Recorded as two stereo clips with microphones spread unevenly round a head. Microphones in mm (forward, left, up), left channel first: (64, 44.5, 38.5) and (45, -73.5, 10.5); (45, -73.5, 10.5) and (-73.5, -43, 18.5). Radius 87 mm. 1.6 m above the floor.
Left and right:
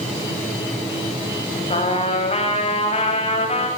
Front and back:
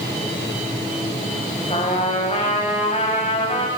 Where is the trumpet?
50° left, 8.5 m.